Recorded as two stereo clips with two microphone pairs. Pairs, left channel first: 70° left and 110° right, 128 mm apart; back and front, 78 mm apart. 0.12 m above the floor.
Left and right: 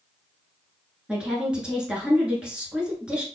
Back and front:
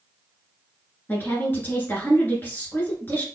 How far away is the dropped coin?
I don't hear a dropped coin.